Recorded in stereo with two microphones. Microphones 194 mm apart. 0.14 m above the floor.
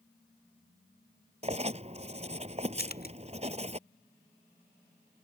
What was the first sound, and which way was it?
Writing, 35° right (ahead or behind).